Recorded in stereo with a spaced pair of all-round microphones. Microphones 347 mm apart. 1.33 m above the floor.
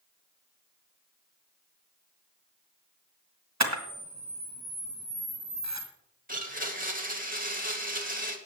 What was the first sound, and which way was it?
A camera shutter, 50° right (ahead or behind).